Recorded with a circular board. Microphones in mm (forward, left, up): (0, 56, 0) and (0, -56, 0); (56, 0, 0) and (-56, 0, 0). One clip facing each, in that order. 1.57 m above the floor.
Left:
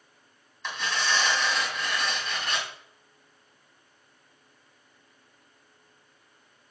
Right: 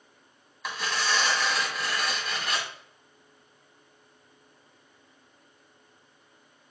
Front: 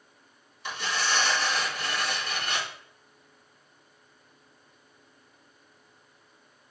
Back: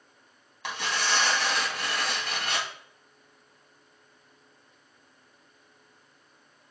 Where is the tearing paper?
175° right, 3 m.